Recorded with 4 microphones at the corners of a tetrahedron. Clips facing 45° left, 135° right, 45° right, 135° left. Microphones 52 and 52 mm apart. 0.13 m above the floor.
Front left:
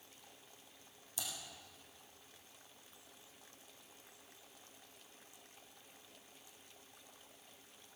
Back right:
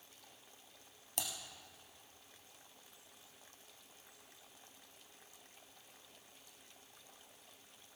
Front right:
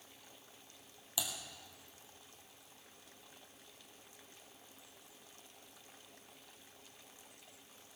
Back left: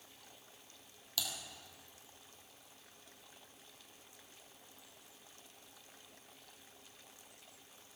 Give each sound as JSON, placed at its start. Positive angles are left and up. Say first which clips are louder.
{"t": 1.2, "sound": "typing on a keyboard", "louder": "back right 3 dB, even", "azimuth_deg": -120, "distance_m": 2.5}